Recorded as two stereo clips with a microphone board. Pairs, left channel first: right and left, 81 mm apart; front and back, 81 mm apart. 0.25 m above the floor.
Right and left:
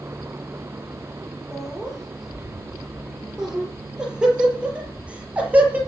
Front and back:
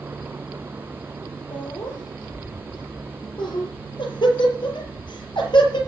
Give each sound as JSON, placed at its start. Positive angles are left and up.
{"t": 1.5, "sound": "laughter", "azimuth_deg": 0, "distance_m": 6.5}